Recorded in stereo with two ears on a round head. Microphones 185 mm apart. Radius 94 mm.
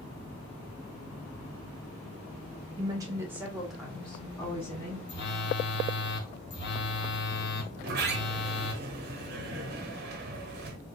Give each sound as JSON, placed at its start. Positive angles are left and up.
{"t": 2.8, "sound": "a woman speaking", "side_deg": -20, "distance_m": 1.0}
{"t": 5.1, "sound": "a phone buzzing", "side_deg": 55, "distance_m": 0.7}
{"t": 7.7, "sound": "a sliding door", "side_deg": -45, "distance_m": 0.7}